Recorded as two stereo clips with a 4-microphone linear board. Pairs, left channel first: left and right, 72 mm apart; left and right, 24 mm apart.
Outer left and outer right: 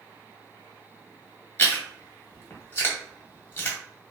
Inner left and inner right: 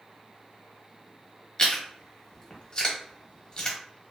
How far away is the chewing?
About 0.8 m.